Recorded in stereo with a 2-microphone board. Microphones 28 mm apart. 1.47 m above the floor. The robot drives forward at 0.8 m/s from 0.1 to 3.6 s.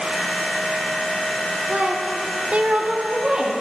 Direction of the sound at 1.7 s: 45° right (ahead or behind).